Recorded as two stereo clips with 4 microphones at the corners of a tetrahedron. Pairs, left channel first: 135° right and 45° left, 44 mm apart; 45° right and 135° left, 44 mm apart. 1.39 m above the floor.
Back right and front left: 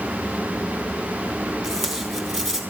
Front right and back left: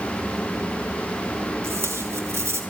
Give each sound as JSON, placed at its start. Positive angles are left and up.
{"t": 1.6, "sound": "tape being pulled", "azimuth_deg": 145, "distance_m": 3.5}